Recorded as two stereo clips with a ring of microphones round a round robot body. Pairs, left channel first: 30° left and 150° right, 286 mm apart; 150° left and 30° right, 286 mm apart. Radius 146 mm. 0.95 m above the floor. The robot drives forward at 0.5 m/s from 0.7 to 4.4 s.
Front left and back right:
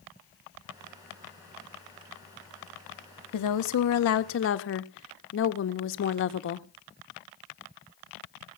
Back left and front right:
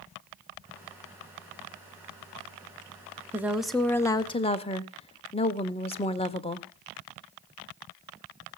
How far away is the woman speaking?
About 1.2 m.